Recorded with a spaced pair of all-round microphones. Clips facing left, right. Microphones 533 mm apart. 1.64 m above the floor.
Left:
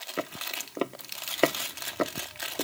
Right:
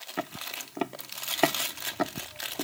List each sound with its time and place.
0.2 s footsteps: 15° right (ahead or behind); by 2.6 s 10° right (ahead or behind)